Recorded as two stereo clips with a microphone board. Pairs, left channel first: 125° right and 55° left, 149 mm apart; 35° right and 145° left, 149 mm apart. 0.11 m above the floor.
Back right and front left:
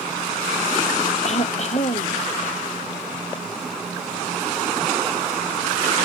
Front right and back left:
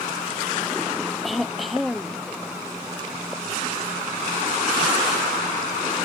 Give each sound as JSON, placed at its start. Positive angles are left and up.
{"t": 1.2, "sound": "throat clearing", "azimuth_deg": -125}